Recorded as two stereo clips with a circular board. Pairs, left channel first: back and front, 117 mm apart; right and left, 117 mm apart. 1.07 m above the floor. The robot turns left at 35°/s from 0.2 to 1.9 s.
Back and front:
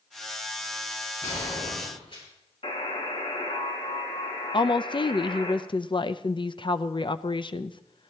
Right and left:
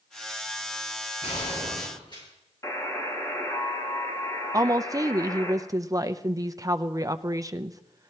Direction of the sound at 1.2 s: 115° right.